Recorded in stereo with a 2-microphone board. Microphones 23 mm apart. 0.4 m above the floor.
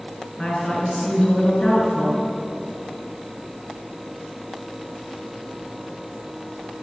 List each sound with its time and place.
0.4 s a woman speaking: 25° left (ahead or behind), 4 m